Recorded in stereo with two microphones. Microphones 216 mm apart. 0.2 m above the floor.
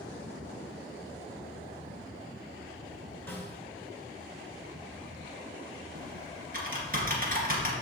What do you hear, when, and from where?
3.3 s a snare drum: 10° left (ahead or behind), 2 m
6.0 s typing on a keyboard: 45° right (ahead or behind), 2.5 m